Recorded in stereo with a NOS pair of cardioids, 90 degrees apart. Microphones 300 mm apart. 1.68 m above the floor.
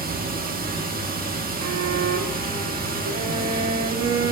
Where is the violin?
55° right, 1.7 m.